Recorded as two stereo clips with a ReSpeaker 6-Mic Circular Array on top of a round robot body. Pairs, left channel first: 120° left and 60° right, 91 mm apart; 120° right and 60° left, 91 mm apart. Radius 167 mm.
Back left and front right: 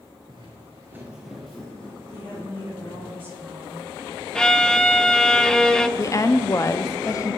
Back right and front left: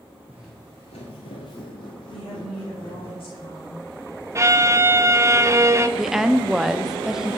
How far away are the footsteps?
About 0.7 m.